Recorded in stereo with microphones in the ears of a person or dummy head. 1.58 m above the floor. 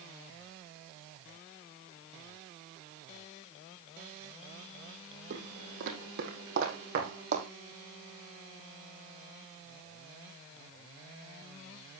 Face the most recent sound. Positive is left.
turn(degrees=-45)  # may be behind; listen again after turning